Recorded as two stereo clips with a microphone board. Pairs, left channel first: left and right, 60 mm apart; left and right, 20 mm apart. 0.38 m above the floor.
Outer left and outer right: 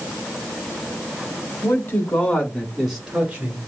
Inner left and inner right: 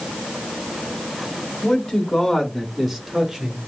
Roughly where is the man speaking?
Left.